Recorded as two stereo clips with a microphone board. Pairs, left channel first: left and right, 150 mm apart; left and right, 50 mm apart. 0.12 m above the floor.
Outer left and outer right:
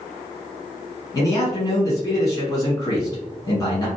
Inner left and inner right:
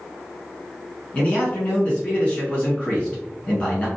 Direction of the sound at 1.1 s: 25° left (ahead or behind).